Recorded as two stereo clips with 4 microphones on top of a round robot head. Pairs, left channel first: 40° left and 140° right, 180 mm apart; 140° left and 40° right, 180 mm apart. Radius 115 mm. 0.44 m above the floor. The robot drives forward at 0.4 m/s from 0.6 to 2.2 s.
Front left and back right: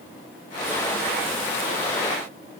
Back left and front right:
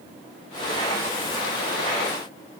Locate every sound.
Only background noise.